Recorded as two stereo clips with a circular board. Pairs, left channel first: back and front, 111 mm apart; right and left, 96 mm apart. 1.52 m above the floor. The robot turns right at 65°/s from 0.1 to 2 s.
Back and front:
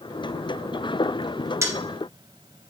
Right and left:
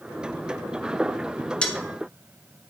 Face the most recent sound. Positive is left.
turn(degrees=0)